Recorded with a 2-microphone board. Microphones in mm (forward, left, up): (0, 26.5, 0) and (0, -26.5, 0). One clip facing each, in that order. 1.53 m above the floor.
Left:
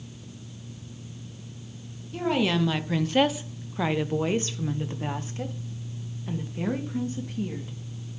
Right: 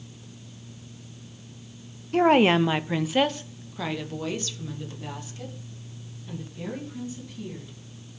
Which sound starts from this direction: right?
A woman speaking, at 2.1 s.